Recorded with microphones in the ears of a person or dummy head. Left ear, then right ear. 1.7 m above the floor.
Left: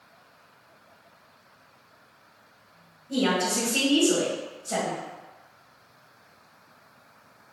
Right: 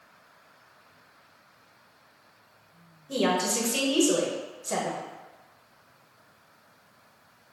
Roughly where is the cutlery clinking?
I don't hear cutlery clinking.